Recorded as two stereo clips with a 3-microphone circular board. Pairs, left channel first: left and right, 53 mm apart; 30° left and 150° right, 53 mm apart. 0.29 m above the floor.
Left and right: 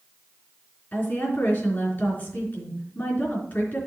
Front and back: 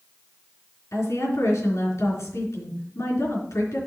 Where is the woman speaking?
35° left, 3.5 m.